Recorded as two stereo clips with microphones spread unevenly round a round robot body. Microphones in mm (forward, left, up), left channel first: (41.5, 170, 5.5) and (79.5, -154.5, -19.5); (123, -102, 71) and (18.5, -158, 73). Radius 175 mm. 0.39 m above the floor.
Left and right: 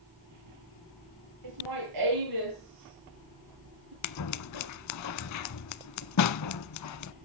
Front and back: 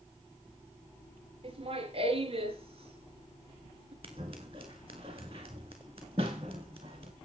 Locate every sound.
1.4 s laughter: 120° right, 8.5 m
4.0 s scissors: 135° left, 0.5 m